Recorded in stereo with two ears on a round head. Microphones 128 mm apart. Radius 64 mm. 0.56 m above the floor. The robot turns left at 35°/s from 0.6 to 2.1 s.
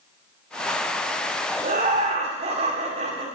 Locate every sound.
1.6 s laughter: 50° right (ahead or behind), 2.0 m; by 3.3 s 45° right (ahead or behind), 2.0 m